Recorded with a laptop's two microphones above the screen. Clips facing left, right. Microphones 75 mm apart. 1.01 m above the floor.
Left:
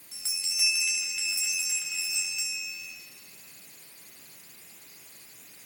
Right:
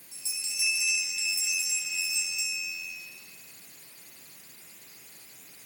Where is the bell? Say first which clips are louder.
Left 1 dB; 75° left (ahead or behind), 3.5 m.